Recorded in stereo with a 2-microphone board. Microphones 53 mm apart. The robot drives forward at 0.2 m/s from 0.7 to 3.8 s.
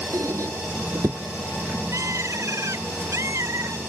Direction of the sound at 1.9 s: 75° right (ahead or behind).